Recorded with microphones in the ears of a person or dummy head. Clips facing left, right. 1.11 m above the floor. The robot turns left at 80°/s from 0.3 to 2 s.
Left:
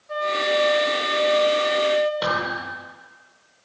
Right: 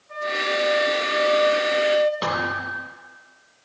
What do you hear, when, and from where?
0.1 s a flute: 120° left, 1.9 m; by 2.1 s 20° right, 1.9 m
2.2 s a thud: 5° right (ahead or behind), 4.5 m